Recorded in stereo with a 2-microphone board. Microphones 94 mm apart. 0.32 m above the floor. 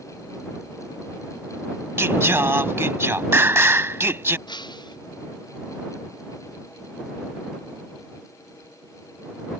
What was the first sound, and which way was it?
Singing, 30° right (ahead or behind).